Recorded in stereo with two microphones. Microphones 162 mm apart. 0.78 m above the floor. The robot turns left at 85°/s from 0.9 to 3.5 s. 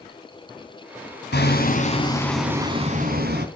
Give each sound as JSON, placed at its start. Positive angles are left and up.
{"t": 1.3, "sound": "hammering", "azimuth_deg": 90, "distance_m": 3.5}